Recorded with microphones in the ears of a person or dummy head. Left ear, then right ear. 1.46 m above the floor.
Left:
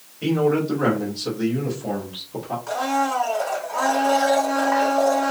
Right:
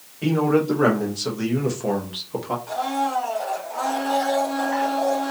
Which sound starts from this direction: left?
A blender, at 2.7 s.